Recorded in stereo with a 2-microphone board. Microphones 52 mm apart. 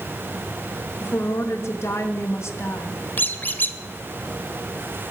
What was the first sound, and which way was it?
A woman speaking, 60° left (ahead or behind).